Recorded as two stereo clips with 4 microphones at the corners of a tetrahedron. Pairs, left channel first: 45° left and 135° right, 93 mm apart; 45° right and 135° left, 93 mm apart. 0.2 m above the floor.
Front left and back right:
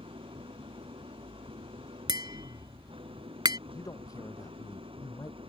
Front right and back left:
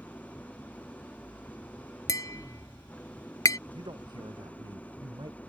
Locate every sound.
0.0 s an engine running: 120° right
2.1 s tapping: 95° right
3.7 s a man speaking: 95° left